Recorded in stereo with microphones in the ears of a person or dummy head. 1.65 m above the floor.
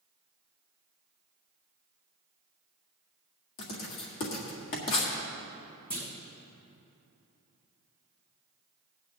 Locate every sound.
3.6 s writing: 55° left (ahead or behind), 1.9 m
5.9 s a clunk: 10° left (ahead or behind), 1.3 m